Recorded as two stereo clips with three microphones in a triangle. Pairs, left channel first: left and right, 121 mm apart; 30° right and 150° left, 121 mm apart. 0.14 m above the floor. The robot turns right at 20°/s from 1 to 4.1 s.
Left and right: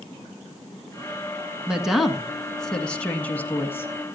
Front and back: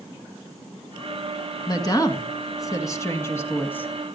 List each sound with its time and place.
1.7 s a woman speaking: 10° right, 1.8 m; by 3.9 s 35° left, 1.8 m